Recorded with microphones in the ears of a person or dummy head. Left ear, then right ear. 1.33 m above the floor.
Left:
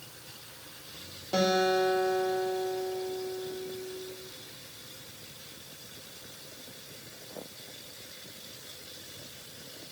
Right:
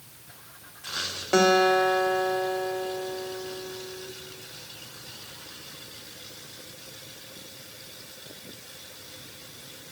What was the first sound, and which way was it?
A guitar, 55° right (ahead or behind).